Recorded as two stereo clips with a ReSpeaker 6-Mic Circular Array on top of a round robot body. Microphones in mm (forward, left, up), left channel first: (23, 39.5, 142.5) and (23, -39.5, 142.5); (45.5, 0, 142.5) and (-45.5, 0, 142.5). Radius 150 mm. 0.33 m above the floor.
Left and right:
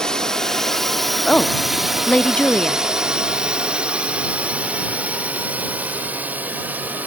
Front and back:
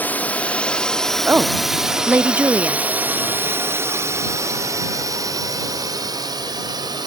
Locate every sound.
0.0 s a drone: 25° left; by 7.1 s 155° right
1.3 s a woman speaking: 145° left